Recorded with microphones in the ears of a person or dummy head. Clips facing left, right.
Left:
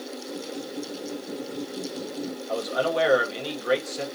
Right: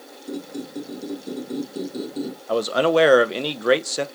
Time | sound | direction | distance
0.3 | a squeak | 85° right | 3.5 m
2.5 | a man speaking | 75° right (ahead or behind) | 0.9 m